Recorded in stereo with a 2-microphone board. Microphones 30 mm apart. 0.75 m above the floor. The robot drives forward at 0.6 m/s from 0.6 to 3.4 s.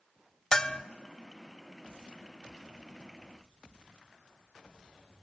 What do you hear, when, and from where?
0.5 s a bell: 25° left (ahead or behind), 0.9 m; by 0.8 s 30° left (ahead or behind), 0.7 m